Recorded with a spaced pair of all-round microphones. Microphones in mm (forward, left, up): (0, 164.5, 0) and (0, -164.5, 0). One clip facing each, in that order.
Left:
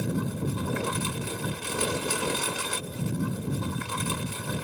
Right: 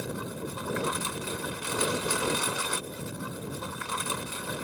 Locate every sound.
0.0 s a lawn mower: 45° left (ahead or behind)